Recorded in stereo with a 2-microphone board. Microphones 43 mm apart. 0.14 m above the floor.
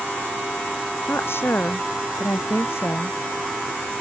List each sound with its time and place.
1.1 s a woman speaking: 65° left (ahead or behind)